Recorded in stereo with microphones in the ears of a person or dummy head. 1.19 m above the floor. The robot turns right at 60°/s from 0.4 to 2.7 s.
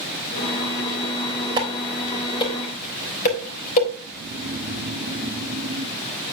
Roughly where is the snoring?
Right.